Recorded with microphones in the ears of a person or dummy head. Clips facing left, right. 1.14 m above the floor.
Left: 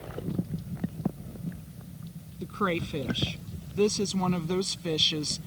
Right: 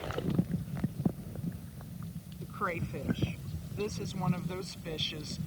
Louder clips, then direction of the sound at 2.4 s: Left 8 dB; 50° left (ahead or behind).